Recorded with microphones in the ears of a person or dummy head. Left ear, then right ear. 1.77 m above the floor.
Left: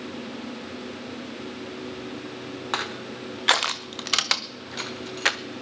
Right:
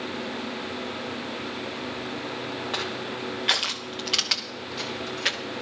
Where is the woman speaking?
I don't hear a woman speaking.